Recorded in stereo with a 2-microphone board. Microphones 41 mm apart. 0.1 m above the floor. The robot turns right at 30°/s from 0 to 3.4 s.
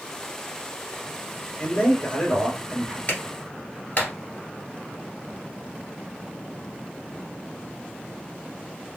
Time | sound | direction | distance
1.6 | a man speaking | 125° left | 2 m
3.1 | a clap | 40° left (ahead or behind) | 1.7 m